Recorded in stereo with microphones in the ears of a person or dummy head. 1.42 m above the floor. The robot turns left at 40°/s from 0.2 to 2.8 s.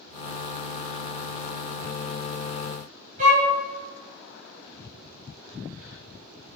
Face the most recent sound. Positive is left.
turn(degrees=-40)  # may be behind; listen again after turning